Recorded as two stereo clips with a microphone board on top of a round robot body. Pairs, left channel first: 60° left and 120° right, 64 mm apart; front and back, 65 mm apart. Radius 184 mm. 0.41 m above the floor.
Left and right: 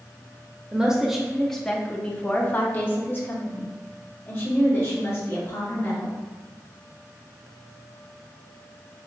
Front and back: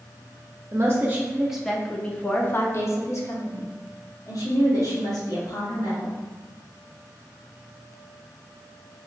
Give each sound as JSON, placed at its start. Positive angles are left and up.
{"t": 0.7, "sound": "a woman speaking", "azimuth_deg": 170, "distance_m": 0.9}